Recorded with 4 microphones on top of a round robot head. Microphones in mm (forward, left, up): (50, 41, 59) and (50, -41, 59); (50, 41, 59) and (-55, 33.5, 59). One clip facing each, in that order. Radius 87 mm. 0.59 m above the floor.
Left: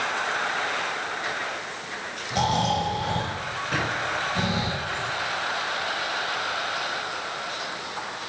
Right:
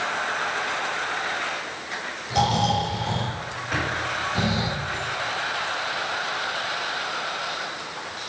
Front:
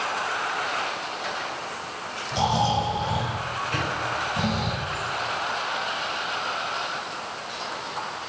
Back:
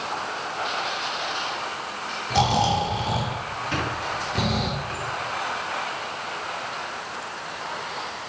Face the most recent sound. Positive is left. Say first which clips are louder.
# right 1 dB, back 1 dB
turn(degrees=180)